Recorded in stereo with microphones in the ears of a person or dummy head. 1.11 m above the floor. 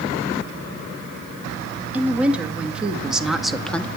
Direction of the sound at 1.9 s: 10° right (ahead or behind).